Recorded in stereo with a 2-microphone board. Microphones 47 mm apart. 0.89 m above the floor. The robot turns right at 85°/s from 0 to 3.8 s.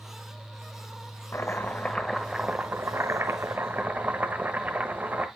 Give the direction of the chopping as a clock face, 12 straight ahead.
8 o'clock.